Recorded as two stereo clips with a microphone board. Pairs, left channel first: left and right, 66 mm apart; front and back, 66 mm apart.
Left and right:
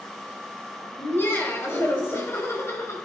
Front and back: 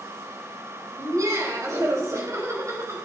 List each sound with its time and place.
1.0 s laughter: 150° left, 5 m; by 3.0 s 140° left, 4 m